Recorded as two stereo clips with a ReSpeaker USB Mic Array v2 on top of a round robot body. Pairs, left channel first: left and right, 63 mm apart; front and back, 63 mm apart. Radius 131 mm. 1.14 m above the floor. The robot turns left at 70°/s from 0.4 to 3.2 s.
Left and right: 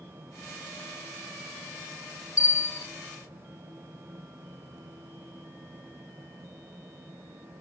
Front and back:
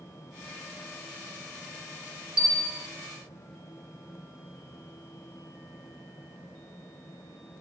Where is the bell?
110° left, 1.0 m; by 2.9 s 75° left, 1.0 m.